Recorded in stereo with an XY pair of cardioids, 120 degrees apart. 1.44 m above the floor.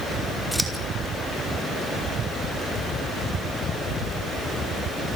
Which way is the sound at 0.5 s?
Straight ahead.